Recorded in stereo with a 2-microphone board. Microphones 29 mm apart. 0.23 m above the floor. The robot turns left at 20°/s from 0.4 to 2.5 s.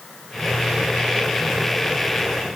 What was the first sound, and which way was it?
Only background noise.